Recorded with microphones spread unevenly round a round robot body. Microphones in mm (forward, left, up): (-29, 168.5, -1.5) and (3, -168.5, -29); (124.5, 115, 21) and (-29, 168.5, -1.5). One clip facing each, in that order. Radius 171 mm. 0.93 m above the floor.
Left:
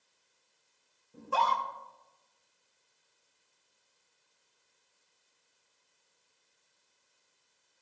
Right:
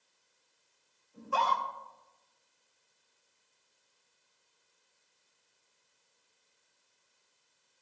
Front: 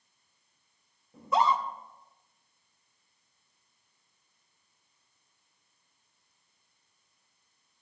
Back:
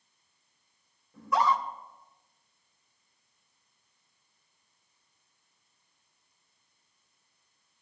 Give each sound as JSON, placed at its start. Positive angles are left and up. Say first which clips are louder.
{"t": 1.1, "sound": "a scream", "louder": "left 1 dB, front 1 dB", "azimuth_deg": 45, "distance_m": 3.0}